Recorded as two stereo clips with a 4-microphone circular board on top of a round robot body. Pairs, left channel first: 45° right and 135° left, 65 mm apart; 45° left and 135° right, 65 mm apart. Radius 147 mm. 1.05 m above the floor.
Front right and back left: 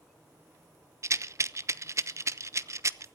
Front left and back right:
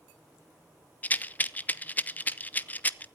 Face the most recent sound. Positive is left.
turn(degrees=105)